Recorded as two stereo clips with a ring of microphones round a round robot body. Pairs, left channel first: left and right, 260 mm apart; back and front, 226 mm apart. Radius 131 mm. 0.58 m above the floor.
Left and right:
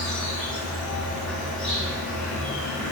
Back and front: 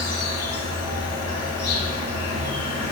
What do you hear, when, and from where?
0.0 s an insect: 175° left, 1.1 m